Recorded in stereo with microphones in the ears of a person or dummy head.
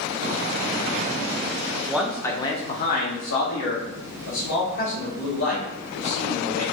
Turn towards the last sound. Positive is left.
turn(degrees=85)